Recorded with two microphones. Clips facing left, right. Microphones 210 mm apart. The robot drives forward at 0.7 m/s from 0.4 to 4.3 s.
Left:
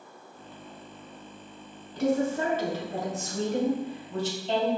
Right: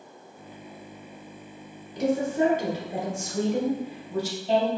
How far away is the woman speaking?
About 1.1 m.